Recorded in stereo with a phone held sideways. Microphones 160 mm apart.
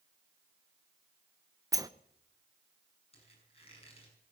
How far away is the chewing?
I don't hear chewing.